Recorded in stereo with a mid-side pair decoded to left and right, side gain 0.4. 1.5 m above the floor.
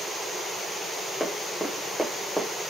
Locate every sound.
1.2 s running footsteps: 10° right, 5.5 m